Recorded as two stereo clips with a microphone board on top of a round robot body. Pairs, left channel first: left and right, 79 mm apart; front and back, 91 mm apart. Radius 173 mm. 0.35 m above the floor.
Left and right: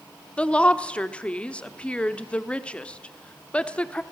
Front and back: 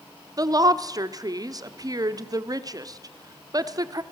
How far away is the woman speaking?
About 1.4 m.